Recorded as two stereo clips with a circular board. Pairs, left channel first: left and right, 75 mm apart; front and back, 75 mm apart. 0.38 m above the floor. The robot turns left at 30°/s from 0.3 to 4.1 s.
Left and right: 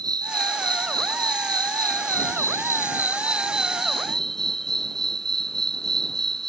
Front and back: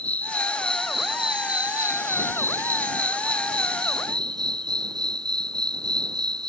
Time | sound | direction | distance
0.0 | an insect | 70° right | ?